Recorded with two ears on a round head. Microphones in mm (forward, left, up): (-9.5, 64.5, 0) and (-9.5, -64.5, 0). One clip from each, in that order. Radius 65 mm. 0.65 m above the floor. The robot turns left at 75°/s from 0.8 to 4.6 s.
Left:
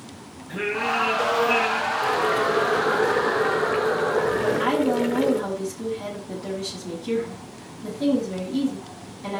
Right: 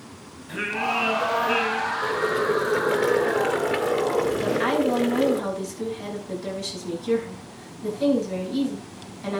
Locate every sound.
0.5 s singing: 120° right, 7 m; by 1.9 s 155° left, 7 m
2.0 s boiling: 35° left, 1.7 m; by 5.4 s 160° right, 1.7 m
4.4 s a woman speaking: 20° right (ahead or behind), 6 m; by 9.4 s 35° right (ahead or behind), 6 m